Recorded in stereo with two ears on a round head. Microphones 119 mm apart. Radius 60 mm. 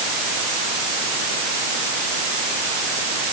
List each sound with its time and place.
Only background noise.